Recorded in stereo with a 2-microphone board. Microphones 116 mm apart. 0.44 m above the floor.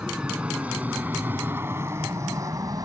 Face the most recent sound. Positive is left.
turn(degrees=-35)  # may be behind; listen again after turning